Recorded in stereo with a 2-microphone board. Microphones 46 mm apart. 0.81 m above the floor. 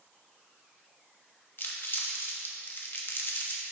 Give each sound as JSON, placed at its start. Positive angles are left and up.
{"t": 1.6, "sound": "crumpling", "side_deg": 50, "distance_m": 0.9}